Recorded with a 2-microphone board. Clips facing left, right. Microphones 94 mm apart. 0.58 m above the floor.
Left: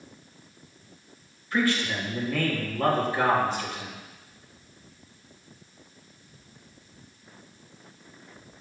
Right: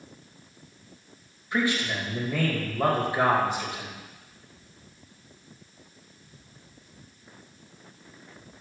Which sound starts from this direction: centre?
A man speaking, at 1.5 s.